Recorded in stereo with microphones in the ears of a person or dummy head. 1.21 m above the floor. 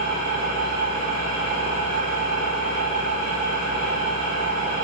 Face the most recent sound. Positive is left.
turn(degrees=-45)  # may be behind; listen again after turning